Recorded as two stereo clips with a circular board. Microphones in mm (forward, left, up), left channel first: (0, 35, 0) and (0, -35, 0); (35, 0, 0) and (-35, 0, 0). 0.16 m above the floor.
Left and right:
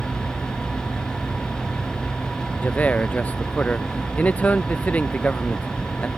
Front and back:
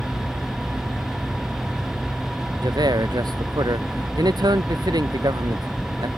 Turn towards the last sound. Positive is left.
turn(degrees=160)